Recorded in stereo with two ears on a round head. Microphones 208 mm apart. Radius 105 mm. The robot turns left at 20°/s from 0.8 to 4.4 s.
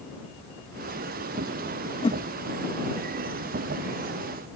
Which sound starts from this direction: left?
A whoosh, at 2.0 s.